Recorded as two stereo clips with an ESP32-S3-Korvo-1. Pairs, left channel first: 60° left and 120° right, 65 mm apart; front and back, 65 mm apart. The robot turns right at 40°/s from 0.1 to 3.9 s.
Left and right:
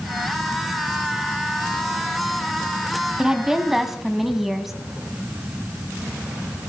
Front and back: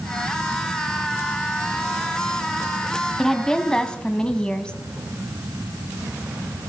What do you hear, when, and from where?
3.2 s a woman speaking: 70° right, 1.2 m; by 4.7 s 40° right, 1.2 m